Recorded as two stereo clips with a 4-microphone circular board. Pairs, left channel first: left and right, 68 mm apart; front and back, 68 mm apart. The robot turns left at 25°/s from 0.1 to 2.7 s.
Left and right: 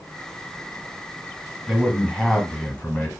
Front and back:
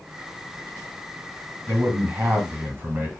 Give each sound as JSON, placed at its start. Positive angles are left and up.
{"t": 1.7, "sound": "a man speaking", "azimuth_deg": 170, "distance_m": 1.8}